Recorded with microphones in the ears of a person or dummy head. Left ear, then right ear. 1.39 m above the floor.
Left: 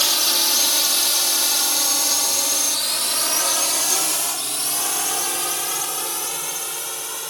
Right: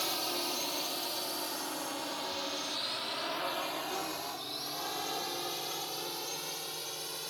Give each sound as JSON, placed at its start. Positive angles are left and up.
{"t": 0.0, "sound": "a drone", "side_deg": 50}